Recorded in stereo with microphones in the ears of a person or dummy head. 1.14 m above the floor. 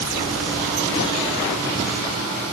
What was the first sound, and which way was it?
Only background noise.